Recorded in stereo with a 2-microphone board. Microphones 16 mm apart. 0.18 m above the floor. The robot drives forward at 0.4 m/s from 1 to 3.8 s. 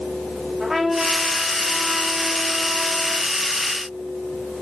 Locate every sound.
0.6 s a trumpet: 10° right (ahead or behind), 6.5 m; by 3.3 s 5° right (ahead or behind), 7.5 m